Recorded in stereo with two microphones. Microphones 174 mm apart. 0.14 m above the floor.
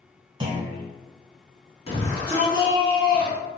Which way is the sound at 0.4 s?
30° right (ahead or behind).